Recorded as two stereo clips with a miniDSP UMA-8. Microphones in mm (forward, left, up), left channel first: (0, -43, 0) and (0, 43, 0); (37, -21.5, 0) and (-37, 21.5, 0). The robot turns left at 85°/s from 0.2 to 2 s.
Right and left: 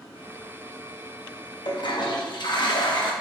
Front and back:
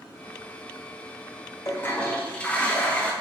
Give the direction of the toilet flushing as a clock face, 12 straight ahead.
2 o'clock.